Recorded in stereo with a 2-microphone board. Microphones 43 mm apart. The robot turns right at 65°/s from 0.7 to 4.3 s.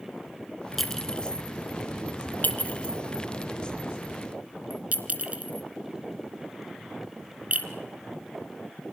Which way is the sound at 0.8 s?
Centre (ahead or behind).